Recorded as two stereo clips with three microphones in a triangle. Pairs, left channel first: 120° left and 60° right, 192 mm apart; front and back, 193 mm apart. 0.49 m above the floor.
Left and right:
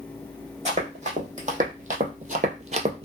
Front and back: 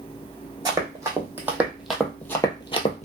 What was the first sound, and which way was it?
Running footsteps, 110° right.